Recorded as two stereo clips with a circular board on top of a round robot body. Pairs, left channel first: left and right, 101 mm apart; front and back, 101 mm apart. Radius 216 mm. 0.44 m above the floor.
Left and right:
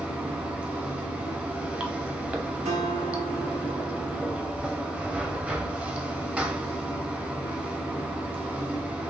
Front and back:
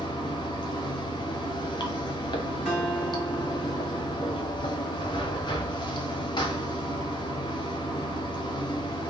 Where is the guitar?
90° right, 1.3 m.